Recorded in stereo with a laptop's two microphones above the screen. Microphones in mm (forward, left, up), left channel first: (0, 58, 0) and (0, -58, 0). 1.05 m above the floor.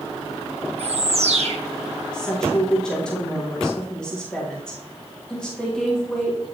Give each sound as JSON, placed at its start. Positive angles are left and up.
{"t": 0.8, "sound": "a bird", "side_deg": -65, "distance_m": 0.8}
{"t": 2.1, "sound": "a woman speaking", "side_deg": 5, "distance_m": 1.5}